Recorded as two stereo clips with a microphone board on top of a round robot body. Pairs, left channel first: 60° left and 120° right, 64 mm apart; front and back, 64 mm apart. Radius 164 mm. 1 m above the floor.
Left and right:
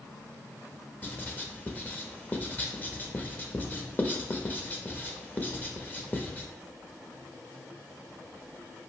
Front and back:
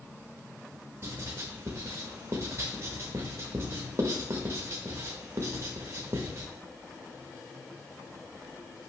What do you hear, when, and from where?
1.0 s writing: 125° left, 0.9 m